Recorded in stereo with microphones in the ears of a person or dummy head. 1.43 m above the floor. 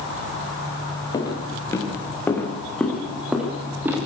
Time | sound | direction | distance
1.1 | footsteps | 15° left (ahead or behind) | 7.5 m